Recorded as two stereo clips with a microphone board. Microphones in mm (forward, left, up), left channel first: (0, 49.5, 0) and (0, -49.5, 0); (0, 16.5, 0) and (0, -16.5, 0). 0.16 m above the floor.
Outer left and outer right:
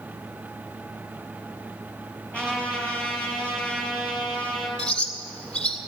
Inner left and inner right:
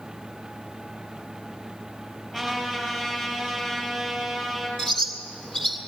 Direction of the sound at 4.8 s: 10° left (ahead or behind).